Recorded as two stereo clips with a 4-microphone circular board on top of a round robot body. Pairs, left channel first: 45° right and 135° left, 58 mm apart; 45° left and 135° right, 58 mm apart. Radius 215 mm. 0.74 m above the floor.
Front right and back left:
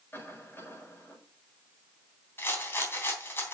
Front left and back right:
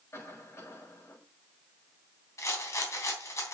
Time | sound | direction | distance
0.1 | a cough | 5° left | 7.5 m
2.4 | a rattle | 5° left | 3 m